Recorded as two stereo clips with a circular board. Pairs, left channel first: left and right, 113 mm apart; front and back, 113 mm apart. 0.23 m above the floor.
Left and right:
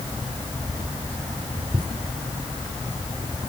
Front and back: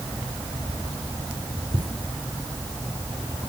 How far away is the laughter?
About 3.5 m.